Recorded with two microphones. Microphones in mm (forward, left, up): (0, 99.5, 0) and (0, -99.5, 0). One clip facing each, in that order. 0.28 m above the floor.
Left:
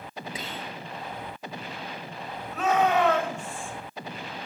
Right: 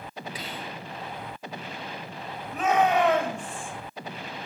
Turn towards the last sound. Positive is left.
turn(degrees=-15)  # may be behind; listen again after turning